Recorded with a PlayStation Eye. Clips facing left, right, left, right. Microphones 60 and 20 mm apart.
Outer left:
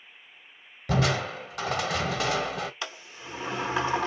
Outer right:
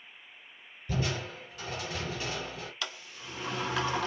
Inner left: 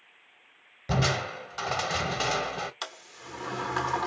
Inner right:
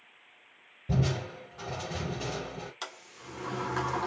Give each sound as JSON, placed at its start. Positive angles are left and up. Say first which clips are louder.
{"t": 0.9, "sound": "crushing", "louder": "outer left 8 dB, inner left 4 dB", "side_deg": 80, "distance_m": 0.8}
{"t": 2.8, "sound": "a sliding door", "louder": "outer left 2 dB, inner left 3 dB", "side_deg": 20, "distance_m": 1.1}